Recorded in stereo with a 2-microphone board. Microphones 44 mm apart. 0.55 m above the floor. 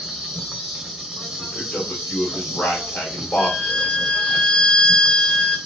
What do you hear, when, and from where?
0.0 s an insect: 10° right (ahead or behind), 1.0 m
1.4 s a man speaking: 40° left (ahead or behind), 1.5 m
3.4 s a violin: 25° left (ahead or behind), 0.8 m